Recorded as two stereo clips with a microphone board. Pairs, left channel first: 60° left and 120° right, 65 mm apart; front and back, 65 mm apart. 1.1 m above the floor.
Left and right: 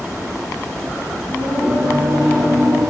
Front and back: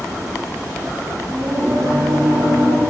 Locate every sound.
1.3 s singing: 170° left, 6 m